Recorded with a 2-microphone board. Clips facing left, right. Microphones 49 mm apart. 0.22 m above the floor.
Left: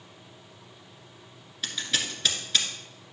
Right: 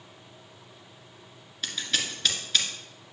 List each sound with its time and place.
1.6 s scissors: centre (ahead or behind), 1.6 m